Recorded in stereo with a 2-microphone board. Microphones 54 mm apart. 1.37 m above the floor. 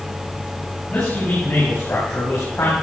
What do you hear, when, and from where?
0.9 s a man speaking: 40° left (ahead or behind), 8.5 m; by 2.7 s 55° left (ahead or behind), 7 m